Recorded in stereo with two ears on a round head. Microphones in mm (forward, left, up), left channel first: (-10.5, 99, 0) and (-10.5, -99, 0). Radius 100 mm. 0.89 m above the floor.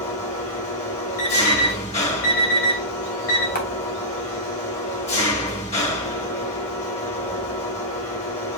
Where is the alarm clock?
80° left, 3.5 m.